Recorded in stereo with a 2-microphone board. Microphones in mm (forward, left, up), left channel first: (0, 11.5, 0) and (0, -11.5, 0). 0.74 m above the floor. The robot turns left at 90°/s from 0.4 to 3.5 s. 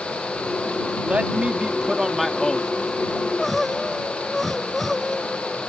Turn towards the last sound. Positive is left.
turn(degrees=5)